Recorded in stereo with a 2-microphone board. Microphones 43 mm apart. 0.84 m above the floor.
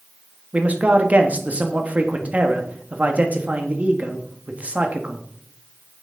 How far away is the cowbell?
No cowbell in this recording.